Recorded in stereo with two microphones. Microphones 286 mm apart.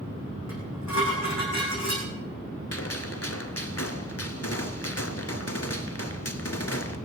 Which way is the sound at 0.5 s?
70° left (ahead or behind).